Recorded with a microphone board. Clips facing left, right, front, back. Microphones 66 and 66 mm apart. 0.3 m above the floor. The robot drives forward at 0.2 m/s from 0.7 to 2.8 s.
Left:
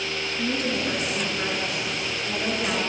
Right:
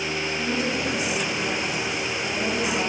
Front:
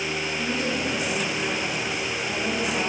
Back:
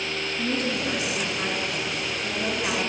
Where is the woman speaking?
170° right, 3.5 m.